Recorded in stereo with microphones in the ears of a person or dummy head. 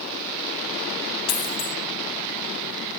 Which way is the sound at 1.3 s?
40° left (ahead or behind).